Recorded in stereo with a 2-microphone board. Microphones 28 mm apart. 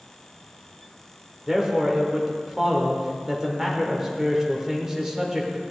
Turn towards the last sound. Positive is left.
turn(degrees=-15)  # may be behind; listen again after turning